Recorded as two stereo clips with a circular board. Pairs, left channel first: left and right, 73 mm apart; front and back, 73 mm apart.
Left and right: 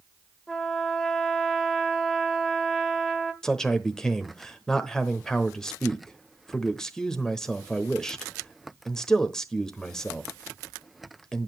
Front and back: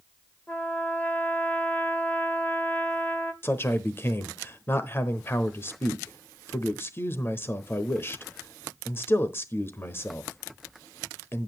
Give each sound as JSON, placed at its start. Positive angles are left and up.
{"t": 0.5, "sound": "a trumpet", "azimuth_deg": 10, "distance_m": 1.5}
{"t": 3.4, "sound": "a man speaking", "azimuth_deg": 15, "distance_m": 1.0}